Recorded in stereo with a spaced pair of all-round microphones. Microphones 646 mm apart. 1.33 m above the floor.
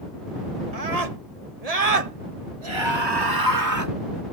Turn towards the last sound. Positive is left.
turn(degrees=-25)  # may be behind; listen again after turning